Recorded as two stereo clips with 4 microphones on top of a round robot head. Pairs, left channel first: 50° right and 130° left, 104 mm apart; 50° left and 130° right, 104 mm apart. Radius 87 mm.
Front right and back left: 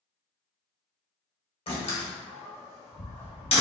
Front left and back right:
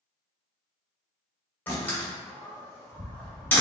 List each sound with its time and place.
1.7 s a door slam: 20° right, 1.9 m